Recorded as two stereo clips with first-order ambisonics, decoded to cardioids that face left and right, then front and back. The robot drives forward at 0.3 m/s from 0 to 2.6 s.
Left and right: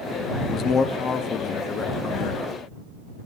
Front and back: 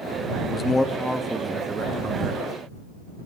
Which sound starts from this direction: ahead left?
A man speaking, at 0.5 s.